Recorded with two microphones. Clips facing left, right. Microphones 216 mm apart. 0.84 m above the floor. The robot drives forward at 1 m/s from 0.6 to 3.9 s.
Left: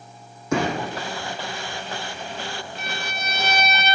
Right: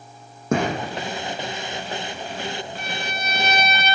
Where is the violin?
55° right (ahead or behind), 1.6 m.